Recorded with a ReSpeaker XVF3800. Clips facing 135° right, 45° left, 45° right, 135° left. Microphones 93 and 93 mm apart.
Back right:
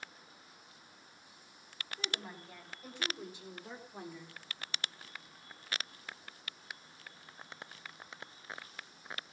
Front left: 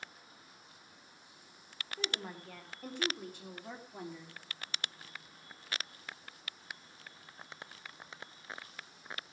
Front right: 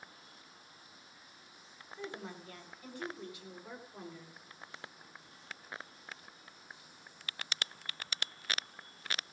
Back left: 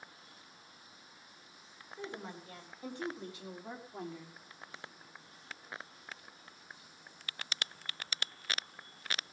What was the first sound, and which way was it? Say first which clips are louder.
A woman speaking: front left 3 dB, even; 65° left.